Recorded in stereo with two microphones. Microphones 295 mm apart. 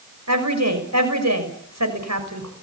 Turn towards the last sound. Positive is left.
turn(degrees=-60)  # may be behind; listen again after turning